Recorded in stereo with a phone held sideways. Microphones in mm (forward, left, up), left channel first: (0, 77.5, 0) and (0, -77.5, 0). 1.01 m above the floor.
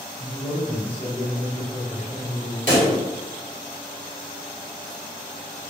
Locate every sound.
0.2 s a man speaking: 55° left (ahead or behind), 1.2 m; by 2.6 s 30° right (ahead or behind), 0.9 m
2.7 s a pop: 65° right (ahead or behind), 1.5 m